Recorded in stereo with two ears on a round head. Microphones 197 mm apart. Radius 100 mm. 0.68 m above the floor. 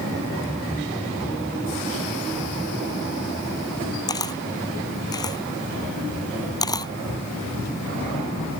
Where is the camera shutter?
20° left (ahead or behind).